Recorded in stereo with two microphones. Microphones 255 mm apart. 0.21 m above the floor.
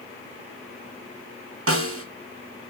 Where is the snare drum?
60° right (ahead or behind), 0.5 m.